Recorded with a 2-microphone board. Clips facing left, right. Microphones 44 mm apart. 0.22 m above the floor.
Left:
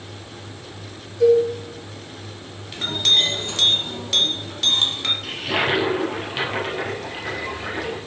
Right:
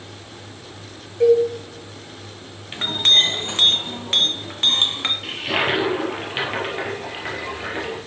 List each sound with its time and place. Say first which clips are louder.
1.2 s a cowbell: even; 40° right (ahead or behind), 3 m
2.7 s a clink: right 2 dB; 35° right (ahead or behind), 1.5 m
5.2 s a toilet flushing: right 1 dB; 20° right (ahead or behind), 3 m